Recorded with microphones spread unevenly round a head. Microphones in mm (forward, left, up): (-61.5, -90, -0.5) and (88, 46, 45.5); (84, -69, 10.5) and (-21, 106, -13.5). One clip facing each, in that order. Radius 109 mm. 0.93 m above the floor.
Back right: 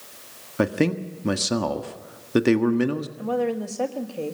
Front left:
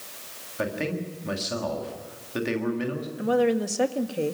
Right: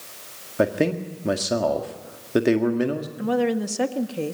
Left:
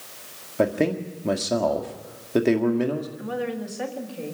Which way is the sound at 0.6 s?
145° right.